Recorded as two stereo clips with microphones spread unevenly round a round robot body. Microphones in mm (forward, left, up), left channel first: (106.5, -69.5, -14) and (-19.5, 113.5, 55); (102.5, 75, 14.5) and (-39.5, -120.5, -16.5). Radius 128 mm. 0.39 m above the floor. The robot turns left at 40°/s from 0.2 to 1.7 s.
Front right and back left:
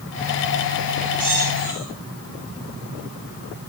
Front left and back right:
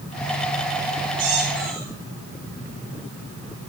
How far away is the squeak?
About 10 m.